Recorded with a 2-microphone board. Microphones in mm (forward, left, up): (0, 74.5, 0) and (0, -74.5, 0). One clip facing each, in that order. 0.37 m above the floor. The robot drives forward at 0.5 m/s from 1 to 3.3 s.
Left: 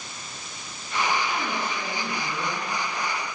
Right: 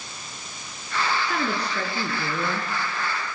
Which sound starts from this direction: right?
A woman speaking, at 1.3 s.